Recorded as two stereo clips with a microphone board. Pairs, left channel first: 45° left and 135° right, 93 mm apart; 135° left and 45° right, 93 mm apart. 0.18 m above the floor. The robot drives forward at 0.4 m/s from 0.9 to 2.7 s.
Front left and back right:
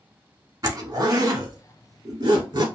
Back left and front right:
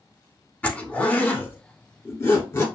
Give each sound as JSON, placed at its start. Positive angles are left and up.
{"t": 0.6, "sound": "a zipper", "azimuth_deg": -160, "distance_m": 0.7}